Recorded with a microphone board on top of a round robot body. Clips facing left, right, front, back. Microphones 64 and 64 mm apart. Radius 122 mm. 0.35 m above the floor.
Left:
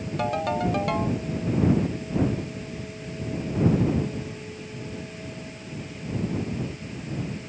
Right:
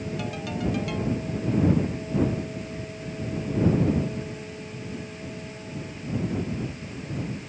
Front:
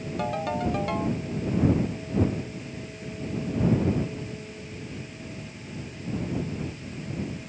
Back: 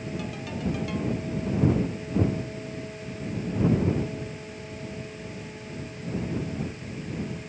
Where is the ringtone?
45° left.